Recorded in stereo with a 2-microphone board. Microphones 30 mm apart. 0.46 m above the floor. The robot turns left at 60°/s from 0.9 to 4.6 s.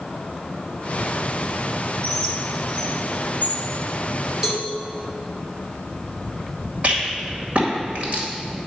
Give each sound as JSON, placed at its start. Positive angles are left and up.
{"t": 2.0, "sound": "a bird", "side_deg": 20, "distance_m": 1.2}
{"t": 4.4, "sound": "a cowbell", "side_deg": -20, "distance_m": 1.4}
{"t": 6.8, "sound": "a rattle", "side_deg": -50, "distance_m": 1.9}